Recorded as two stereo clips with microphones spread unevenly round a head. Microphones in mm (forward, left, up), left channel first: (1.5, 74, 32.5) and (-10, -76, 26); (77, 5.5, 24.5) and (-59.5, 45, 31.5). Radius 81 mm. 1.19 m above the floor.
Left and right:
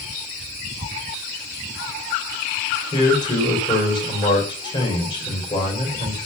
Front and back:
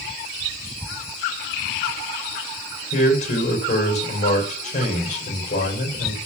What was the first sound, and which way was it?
A man speaking, 25° left.